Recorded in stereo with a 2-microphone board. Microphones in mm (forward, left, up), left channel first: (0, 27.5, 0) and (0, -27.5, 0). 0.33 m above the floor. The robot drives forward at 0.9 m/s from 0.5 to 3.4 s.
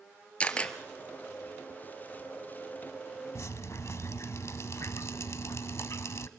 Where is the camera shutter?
20° left (ahead or behind), 1.4 m.